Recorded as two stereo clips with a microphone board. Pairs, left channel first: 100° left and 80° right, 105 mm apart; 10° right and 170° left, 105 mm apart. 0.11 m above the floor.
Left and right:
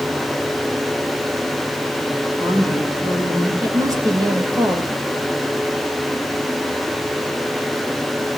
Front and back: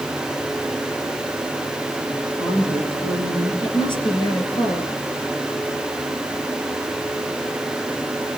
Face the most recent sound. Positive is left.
turn(degrees=-35)